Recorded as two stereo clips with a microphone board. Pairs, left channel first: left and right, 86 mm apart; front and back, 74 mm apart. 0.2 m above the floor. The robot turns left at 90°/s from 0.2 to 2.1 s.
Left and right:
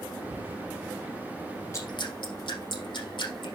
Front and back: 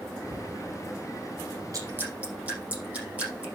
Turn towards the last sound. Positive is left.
turn(degrees=110)